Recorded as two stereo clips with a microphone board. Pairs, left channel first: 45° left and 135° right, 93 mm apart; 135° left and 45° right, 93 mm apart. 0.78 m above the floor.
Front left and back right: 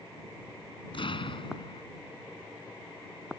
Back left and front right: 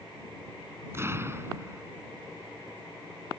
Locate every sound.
0.9 s an explosion: 20° left